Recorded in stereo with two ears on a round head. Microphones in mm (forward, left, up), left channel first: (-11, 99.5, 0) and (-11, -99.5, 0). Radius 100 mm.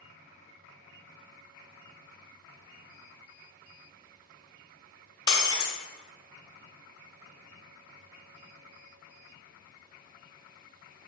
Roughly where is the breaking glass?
Centre.